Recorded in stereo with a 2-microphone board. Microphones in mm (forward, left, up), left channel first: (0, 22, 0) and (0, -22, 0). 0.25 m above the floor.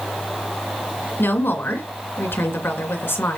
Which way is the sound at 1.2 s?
65° left (ahead or behind).